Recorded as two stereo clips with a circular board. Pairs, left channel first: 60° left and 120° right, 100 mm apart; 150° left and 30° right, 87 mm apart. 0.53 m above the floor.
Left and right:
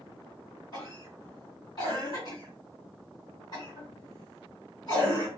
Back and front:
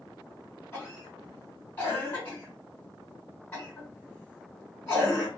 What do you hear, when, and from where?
0.7 s a cough: 90° left, 1.8 m